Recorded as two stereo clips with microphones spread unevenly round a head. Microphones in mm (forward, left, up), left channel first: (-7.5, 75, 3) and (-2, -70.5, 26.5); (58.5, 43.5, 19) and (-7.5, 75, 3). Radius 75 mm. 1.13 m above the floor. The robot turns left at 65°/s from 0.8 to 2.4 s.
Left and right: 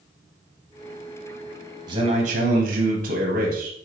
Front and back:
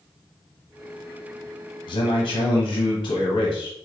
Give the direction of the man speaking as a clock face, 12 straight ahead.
1 o'clock.